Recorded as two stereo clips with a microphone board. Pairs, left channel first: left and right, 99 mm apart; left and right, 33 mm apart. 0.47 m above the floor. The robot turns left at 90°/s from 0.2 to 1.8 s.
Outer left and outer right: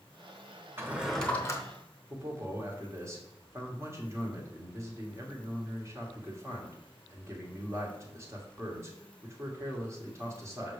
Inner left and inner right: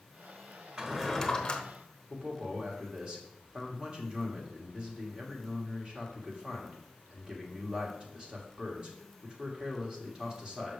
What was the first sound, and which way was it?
A drawer, 150° right.